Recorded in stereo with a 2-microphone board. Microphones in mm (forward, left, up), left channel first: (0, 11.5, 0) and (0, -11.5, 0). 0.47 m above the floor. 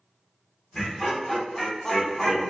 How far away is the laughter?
About 0.9 m.